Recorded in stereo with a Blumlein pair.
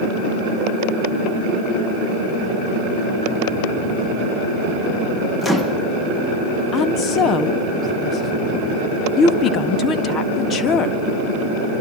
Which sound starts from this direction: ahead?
A microwave, at 5.4 s.